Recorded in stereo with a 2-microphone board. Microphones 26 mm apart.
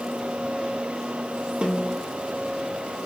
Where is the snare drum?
60° right (ahead or behind), 2.5 m.